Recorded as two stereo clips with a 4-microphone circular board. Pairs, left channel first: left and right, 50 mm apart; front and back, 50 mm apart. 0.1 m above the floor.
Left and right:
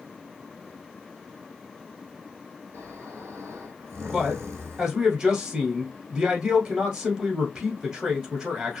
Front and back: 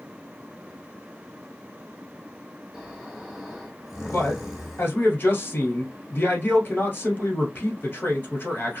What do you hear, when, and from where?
2.7 s snoring: 105° right, 1.3 m
4.1 s a man speaking: 30° right, 1.5 m